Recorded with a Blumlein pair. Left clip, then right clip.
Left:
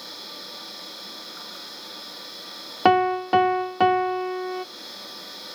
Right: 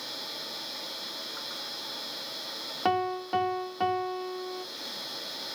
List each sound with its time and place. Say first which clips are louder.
0.0 s a machine running: even; 10° right, 5 m
2.9 s a piano: left 10 dB; 65° left, 0.7 m